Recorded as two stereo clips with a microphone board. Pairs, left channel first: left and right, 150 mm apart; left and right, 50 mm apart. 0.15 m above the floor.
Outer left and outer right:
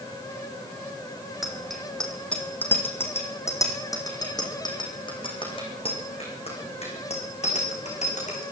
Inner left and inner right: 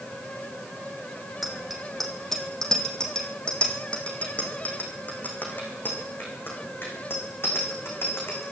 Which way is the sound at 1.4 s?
Centre (ahead or behind).